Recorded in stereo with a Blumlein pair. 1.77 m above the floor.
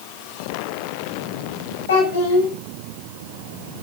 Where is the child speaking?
60° left, 7.5 m.